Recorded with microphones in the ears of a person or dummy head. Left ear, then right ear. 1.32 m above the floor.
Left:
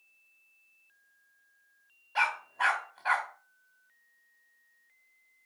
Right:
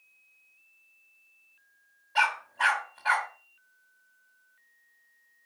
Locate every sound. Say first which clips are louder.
2.1 s a dog barking: right 3 dB; 5° left (ahead or behind), 2 m